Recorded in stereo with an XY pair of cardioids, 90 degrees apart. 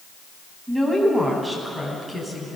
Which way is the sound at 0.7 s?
10° right.